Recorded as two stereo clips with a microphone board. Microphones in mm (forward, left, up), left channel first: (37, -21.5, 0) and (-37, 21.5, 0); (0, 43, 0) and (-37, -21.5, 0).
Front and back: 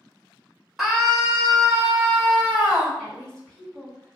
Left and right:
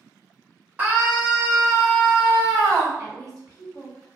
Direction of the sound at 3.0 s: 115° right.